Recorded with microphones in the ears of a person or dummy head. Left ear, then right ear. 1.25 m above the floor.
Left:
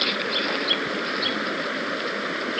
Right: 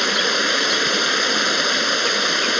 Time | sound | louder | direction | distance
0.0 | running water | right 6 dB | 80° right | ?